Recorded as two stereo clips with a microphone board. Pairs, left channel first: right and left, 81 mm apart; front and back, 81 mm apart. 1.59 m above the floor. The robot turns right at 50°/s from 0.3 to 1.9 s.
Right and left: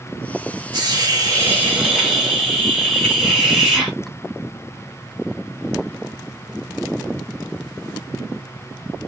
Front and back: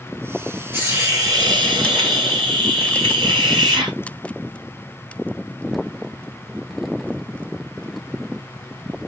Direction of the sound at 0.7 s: 110° left.